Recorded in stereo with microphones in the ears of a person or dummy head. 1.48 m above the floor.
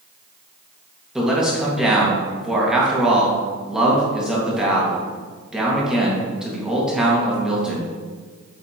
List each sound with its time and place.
1.1 s a man speaking: centre (ahead or behind), 1.7 m